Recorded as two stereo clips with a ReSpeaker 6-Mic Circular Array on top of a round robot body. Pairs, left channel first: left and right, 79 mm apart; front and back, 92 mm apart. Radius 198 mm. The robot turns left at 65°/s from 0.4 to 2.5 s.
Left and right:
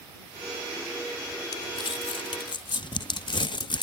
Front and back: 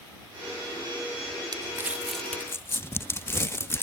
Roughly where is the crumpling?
Behind left.